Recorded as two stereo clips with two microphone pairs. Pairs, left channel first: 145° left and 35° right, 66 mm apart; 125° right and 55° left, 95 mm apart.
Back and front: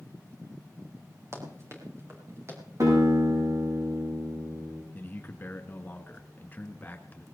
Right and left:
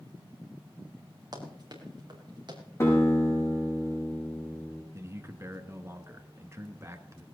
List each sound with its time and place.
1.3 s running footsteps: 15° left, 5 m; by 2.6 s 20° left, 5.5 m
2.8 s a guitar: 65° right, 7.5 m
4.9 s a man speaking: 100° left, 1.7 m